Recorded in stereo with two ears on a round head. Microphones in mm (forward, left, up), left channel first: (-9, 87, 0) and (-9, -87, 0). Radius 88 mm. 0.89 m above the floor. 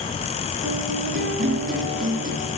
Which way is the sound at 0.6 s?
45° right (ahead or behind).